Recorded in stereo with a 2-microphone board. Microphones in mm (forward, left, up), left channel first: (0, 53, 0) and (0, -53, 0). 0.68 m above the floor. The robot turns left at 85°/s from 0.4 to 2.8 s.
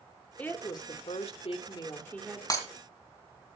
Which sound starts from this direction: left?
Breaking glass, at 2.5 s.